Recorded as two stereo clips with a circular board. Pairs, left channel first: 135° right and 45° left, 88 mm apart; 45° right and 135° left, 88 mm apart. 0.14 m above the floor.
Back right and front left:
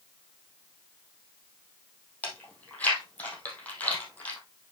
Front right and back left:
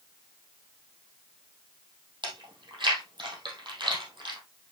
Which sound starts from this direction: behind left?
Chewing, at 2.2 s.